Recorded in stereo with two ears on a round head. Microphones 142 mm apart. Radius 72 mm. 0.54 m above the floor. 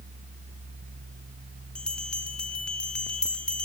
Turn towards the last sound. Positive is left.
turn(degrees=5)  # may be behind; listen again after turning